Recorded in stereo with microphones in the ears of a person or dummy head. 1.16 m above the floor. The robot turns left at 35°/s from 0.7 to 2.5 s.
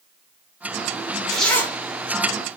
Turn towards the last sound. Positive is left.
turn(degrees=20)  # may be behind; listen again after turning